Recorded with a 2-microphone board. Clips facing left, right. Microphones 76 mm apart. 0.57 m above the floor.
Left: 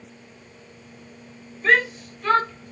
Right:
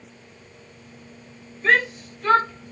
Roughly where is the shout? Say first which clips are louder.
Even; centre.